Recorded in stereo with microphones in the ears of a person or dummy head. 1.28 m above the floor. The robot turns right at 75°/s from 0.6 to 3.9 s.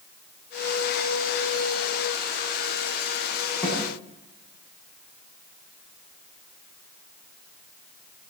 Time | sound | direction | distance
3.6 | a snare drum | 5° left (ahead or behind) | 9.5 m